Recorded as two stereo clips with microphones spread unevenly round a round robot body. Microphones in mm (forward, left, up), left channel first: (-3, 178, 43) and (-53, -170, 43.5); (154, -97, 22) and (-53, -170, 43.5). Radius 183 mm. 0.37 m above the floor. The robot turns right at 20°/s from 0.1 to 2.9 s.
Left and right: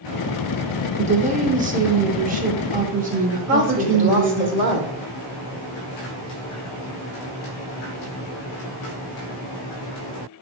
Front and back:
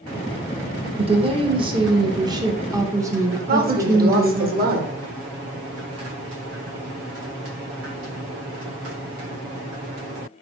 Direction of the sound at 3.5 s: 135° right.